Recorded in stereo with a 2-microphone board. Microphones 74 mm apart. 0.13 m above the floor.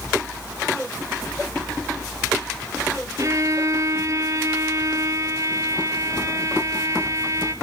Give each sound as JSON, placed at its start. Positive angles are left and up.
{"t": 3.2, "sound": "a violin", "side_deg": -45, "distance_m": 1.2}